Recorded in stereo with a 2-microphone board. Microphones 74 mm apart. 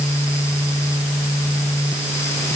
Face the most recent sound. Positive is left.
No sound to turn to.